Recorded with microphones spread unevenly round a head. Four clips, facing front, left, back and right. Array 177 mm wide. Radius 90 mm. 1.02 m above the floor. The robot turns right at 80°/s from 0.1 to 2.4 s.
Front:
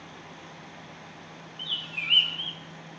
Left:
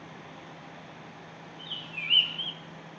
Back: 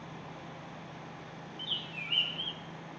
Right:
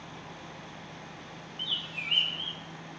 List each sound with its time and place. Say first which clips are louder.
1.6 s a bird: right 1 dB, front 3 dB; 40° right, 0.9 m; by 2.6 s 25° left, 0.9 m